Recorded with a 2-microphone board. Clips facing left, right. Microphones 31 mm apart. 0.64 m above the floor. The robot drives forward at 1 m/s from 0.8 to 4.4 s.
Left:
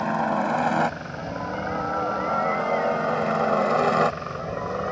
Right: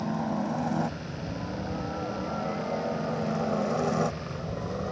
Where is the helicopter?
70° left (ahead or behind); by 4.9 s 50° left (ahead or behind).